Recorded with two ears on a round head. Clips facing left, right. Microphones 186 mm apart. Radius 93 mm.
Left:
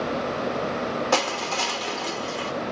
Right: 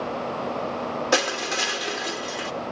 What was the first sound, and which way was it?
Crushing, 20° right (ahead or behind).